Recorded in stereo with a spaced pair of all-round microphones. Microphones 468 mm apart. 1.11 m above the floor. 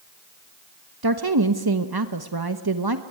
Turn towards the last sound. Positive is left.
turn(degrees=-50)  # may be behind; listen again after turning